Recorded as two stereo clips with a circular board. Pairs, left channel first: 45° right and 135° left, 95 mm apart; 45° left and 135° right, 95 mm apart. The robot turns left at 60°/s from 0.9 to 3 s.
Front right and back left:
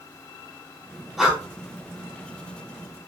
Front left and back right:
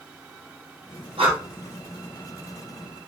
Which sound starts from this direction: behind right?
Breathing, at 1.2 s.